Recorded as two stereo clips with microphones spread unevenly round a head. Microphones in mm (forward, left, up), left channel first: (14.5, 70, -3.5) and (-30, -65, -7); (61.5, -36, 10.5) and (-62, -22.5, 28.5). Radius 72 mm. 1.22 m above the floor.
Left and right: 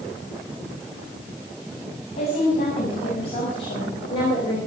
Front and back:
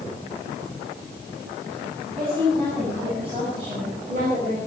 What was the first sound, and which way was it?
A woman speaking, 115° left.